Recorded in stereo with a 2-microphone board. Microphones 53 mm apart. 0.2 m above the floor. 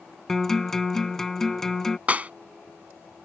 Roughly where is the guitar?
Centre.